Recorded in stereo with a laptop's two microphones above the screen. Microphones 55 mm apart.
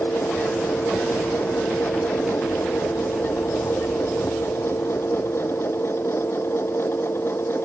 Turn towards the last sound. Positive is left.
turn(degrees=50)  # may be behind; listen again after turning